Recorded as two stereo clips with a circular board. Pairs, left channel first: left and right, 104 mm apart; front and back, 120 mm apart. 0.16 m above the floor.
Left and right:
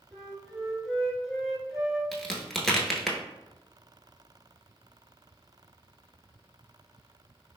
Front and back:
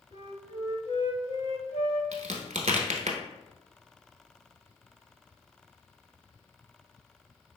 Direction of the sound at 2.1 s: 175° left.